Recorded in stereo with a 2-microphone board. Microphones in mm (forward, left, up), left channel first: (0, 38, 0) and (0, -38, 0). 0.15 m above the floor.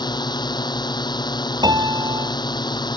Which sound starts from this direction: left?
A drone, at 0.0 s.